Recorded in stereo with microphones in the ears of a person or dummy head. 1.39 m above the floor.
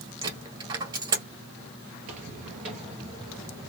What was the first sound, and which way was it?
A dropped coin, 25° right (ahead or behind).